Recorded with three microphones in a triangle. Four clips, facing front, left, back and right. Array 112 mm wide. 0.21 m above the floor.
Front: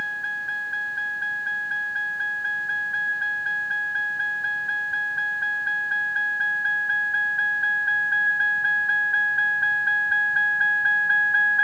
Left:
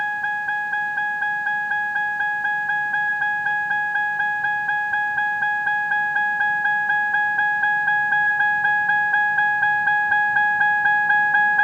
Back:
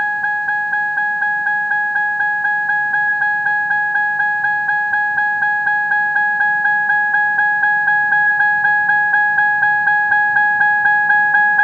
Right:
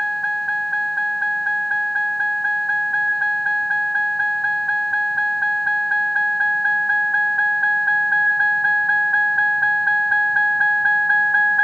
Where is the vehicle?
170° left; by 11.6 s 165° left.